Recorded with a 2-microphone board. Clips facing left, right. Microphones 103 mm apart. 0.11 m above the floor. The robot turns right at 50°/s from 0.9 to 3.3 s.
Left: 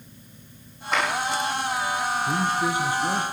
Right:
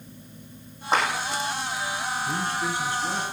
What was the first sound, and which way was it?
A clap, 30° right (ahead or behind).